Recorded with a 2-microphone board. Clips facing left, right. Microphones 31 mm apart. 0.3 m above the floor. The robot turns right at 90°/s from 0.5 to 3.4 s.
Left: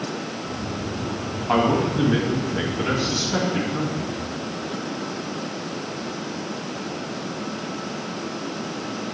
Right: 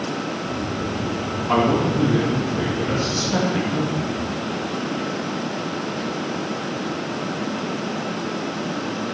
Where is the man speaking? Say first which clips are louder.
Right 1 dB; 20° left, 2 m; by 4.2 s 170° right, 2 m.